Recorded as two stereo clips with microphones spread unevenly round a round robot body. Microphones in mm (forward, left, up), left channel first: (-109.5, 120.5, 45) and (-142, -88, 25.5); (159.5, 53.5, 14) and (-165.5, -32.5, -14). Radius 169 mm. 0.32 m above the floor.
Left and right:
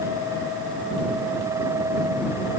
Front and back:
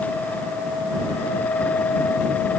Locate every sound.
Only background noise.